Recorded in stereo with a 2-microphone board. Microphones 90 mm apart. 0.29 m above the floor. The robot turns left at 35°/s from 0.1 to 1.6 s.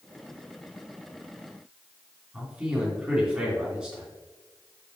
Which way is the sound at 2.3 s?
15° right (ahead or behind).